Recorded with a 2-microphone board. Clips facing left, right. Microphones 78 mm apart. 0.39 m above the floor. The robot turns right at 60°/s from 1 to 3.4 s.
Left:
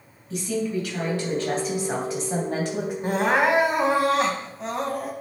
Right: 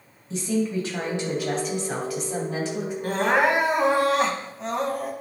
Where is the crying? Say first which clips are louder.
Even; 25° left (ahead or behind), 1.3 m; by 5.1 s centre (ahead or behind), 1.3 m.